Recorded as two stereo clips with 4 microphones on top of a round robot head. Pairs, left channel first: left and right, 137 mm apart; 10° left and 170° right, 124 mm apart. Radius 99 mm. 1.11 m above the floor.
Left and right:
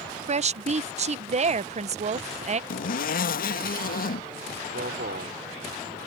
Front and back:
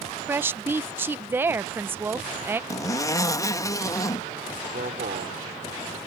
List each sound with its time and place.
0.3 s a woman speaking: 100° right
2.7 s a zipper: 75° left
4.6 s a man speaking: 125° right